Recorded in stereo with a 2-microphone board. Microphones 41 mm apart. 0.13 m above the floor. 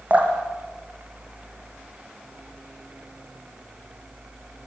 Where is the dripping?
40° right (ahead or behind), 4.5 m.